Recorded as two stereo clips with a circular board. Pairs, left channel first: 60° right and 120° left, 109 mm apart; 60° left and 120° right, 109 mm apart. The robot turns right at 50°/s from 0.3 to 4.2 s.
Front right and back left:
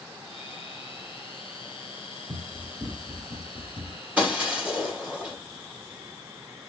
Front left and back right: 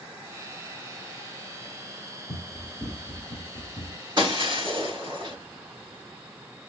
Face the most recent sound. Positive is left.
turn(degrees=-165)